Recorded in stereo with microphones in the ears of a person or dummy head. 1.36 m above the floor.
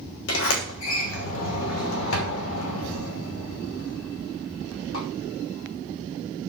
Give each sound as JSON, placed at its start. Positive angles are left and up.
{"t": 0.3, "sound": "a sliding door", "side_deg": 70, "distance_m": 3.0}